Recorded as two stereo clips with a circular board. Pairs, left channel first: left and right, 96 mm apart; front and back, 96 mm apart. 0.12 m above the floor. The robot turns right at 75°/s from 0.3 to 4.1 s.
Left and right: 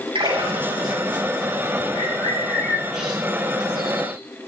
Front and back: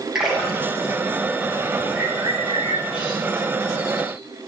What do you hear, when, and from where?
0.1 s a splash: 95° right, 10 m; by 0.9 s 45° right, 10 m
1.9 s a bird: 110° left, 9 m; by 4.2 s 85° right, 9 m